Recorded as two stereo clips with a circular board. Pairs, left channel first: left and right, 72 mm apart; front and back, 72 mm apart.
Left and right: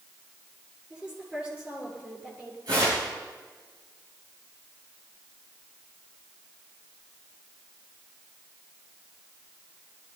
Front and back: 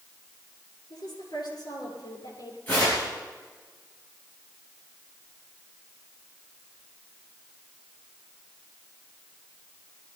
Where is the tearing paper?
65° right, 7 m.